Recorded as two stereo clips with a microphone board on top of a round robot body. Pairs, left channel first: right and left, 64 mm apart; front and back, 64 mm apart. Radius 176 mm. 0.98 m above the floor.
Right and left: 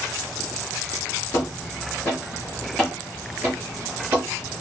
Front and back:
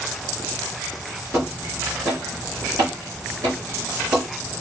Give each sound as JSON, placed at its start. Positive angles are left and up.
{"t": 1.3, "sound": "footsteps", "azimuth_deg": -125, "distance_m": 1.6}